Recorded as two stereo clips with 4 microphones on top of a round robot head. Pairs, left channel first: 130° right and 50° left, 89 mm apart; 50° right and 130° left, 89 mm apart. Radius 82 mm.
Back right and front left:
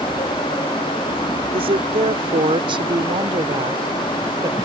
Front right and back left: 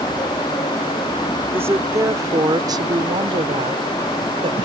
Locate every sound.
1.5 s a woman speaking: 65° left; by 4.7 s 105° left